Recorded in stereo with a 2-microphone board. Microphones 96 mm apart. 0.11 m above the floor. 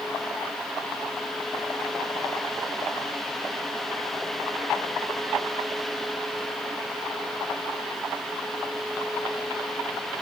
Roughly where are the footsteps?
No footsteps in this recording.